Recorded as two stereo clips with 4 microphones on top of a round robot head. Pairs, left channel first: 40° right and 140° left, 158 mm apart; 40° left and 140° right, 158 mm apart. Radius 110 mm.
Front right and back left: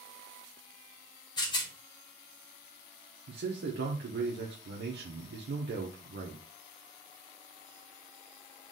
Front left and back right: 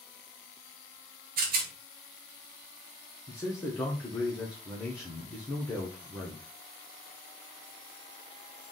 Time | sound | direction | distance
1.4 | a rattle | 105° right | 1.1 m
3.3 | a man speaking | 120° left | 1.1 m